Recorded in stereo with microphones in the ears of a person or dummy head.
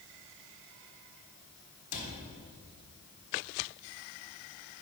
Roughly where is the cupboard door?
Left.